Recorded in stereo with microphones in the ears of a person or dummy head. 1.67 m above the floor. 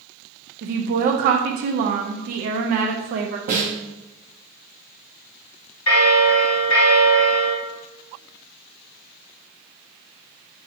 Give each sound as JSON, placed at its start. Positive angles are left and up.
{"t": 0.6, "sound": "a woman speaking", "side_deg": -45, "distance_m": 0.6}
{"t": 3.5, "sound": "a snare drum", "side_deg": -45, "distance_m": 0.9}
{"t": 5.9, "sound": "a bell", "side_deg": 75, "distance_m": 0.9}